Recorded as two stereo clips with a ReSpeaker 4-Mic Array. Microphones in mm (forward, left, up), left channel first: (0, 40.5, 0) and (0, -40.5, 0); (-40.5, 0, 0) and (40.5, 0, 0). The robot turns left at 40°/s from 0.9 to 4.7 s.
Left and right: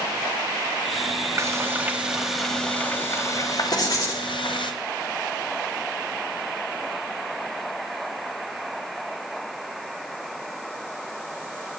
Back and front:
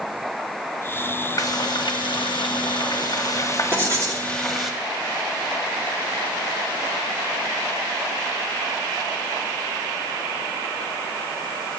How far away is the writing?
About 1.7 m.